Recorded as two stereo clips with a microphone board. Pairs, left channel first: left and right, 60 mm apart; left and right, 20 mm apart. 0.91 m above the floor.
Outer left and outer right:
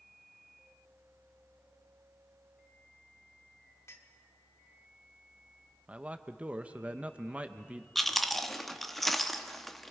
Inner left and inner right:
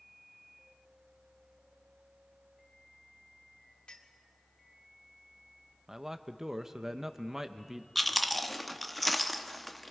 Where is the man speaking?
25° right (ahead or behind), 0.7 m.